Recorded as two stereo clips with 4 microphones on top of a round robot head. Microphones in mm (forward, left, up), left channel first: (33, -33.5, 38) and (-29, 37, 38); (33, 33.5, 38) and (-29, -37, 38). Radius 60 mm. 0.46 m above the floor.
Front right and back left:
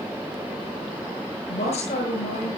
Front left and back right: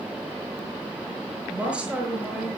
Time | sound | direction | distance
1.5 | a woman speaking | 50° right | 8 m